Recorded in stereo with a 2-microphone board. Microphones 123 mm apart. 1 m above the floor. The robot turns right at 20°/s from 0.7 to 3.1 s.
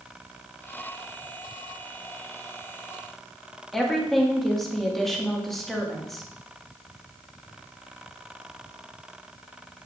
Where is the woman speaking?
Centre (ahead or behind), 1.5 m.